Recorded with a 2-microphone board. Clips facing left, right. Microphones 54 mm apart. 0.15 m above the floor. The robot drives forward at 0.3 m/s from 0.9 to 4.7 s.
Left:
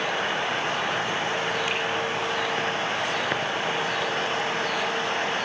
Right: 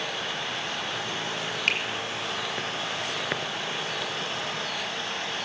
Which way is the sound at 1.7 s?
65° right (ahead or behind).